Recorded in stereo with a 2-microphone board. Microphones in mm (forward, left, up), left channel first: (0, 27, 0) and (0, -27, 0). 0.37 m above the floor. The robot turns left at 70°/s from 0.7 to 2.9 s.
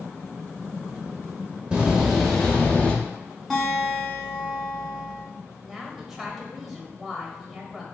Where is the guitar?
5° right (ahead or behind), 2 m.